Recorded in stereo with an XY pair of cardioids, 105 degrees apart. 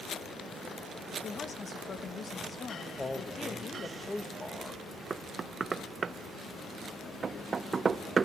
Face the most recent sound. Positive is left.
turn(degrees=-35)